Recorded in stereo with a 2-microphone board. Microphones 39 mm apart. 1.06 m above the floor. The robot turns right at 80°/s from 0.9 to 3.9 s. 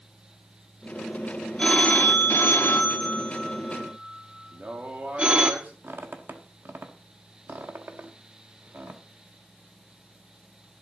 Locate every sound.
1.6 s a phone ringing: 25° left (ahead or behind), 1.2 m; by 5.5 s 30° right (ahead or behind), 1.2 m
4.5 s a man speaking: 45° right (ahead or behind), 2.5 m
5.8 s a squeak: 65° right (ahead or behind), 1.2 m